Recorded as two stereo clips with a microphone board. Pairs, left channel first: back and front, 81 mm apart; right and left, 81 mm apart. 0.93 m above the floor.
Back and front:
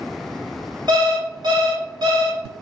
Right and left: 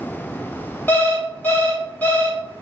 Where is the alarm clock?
25° right, 1.1 m.